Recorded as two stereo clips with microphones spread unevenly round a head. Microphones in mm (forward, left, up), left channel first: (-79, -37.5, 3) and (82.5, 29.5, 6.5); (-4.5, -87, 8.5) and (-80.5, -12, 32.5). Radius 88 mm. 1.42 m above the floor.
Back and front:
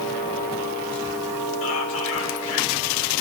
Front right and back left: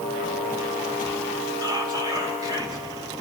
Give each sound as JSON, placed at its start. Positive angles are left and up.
{"t": 1.6, "sound": "whispering", "azimuth_deg": -170, "distance_m": 6.0}